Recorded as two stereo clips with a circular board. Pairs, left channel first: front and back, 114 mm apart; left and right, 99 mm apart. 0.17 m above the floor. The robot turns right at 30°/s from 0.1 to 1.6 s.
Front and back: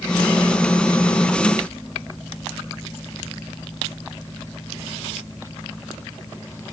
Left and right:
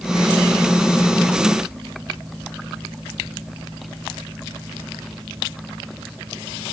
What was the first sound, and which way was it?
Only background noise.